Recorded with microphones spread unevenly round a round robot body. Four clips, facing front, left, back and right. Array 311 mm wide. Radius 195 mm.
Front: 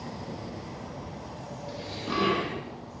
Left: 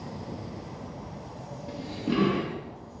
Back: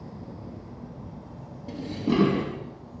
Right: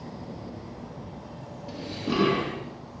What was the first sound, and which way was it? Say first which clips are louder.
Dishes clattering: even, back 8 dB; 170° left.